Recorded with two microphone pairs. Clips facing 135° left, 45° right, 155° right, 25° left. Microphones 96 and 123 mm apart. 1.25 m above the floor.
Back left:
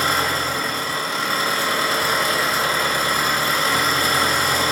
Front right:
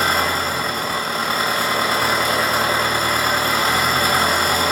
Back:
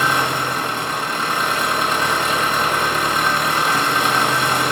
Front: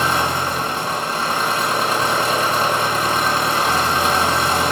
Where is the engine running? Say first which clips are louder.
Front right 2 dB, even; 20° right, 1.6 m.